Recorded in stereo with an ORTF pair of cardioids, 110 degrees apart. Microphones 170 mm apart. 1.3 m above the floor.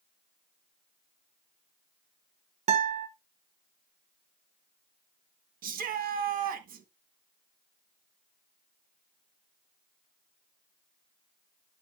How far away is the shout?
About 1.4 m.